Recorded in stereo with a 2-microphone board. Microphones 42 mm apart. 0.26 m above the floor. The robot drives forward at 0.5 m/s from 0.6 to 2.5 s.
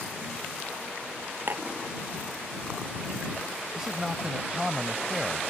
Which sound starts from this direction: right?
Dishes clattering, at 1.5 s.